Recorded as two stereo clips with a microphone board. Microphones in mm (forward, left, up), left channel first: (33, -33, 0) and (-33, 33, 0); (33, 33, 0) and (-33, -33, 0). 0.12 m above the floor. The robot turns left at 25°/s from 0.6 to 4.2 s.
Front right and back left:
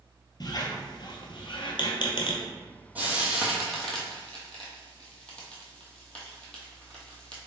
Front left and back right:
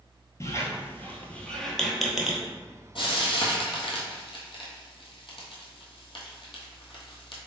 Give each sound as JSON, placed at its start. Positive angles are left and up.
{"t": 0.4, "sound": "a squeak", "azimuth_deg": -10, "distance_m": 0.7}
{"t": 3.0, "sound": "frying", "azimuth_deg": 65, "distance_m": 1.1}